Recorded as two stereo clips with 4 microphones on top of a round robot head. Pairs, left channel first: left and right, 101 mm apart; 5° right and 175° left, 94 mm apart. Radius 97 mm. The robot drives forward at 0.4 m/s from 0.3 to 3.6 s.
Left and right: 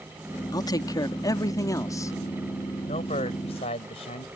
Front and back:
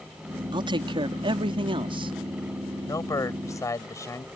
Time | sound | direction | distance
0.5 | a man speaking | 140° left | ?
2.9 | a man speaking | 50° left | ?